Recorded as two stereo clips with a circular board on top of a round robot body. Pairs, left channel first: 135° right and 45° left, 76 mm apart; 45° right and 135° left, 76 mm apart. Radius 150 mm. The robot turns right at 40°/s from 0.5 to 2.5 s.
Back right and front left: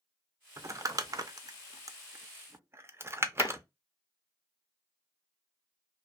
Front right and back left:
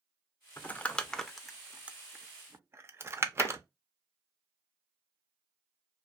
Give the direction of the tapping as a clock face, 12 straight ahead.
3 o'clock.